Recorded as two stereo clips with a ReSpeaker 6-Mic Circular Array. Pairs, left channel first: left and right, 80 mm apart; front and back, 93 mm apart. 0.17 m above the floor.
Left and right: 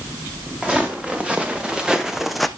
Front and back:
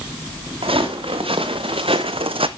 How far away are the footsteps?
About 1.8 m.